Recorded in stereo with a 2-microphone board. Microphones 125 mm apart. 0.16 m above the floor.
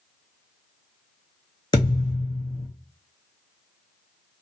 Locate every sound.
1.7 s a thud: 35° left (ahead or behind), 2.5 m